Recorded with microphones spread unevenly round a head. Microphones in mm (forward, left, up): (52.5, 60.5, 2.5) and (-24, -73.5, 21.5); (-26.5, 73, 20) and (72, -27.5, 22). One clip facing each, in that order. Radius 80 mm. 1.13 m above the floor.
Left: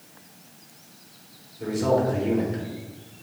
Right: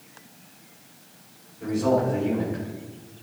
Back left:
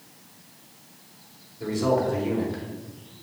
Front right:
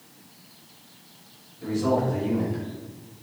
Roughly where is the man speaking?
Left.